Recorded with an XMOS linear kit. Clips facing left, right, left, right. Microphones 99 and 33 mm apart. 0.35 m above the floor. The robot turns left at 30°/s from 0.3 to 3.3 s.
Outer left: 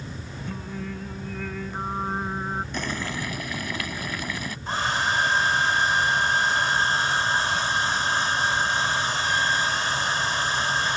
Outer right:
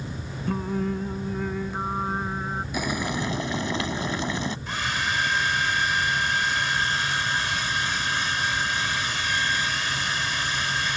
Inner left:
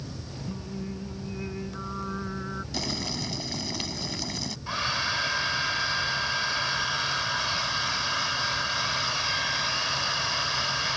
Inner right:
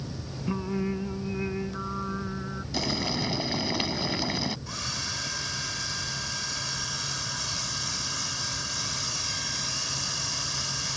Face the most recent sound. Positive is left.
turn(degrees=35)  # may be behind; listen again after turning